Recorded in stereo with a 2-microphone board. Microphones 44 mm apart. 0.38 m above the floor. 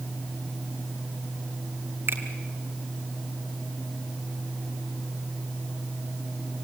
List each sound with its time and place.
2.1 s a finger snap: 60° right (ahead or behind), 2.5 m